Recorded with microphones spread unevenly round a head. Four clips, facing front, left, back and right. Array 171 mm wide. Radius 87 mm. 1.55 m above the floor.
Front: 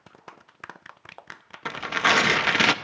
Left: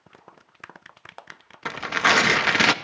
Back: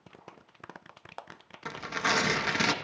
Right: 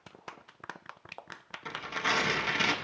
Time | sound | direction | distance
1.6 | tearing paper | 65° left | 0.5 m